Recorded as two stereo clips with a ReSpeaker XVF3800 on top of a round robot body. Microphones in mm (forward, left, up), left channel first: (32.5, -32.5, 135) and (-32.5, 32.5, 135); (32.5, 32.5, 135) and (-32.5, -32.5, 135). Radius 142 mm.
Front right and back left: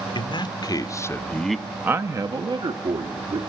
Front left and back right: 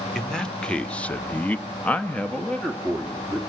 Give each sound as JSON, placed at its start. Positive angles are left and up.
{"t": 0.1, "sound": "a man speaking", "azimuth_deg": -35, "distance_m": 1.5}